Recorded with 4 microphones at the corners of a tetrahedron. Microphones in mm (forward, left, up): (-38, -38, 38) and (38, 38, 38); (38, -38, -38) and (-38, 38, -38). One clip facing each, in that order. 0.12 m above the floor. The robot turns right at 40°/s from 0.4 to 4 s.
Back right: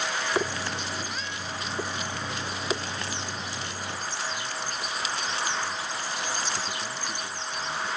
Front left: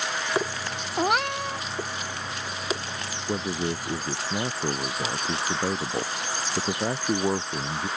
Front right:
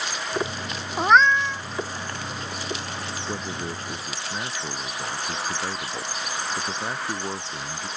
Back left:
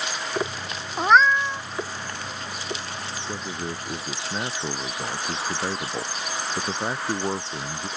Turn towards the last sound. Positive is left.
turn(degrees=65)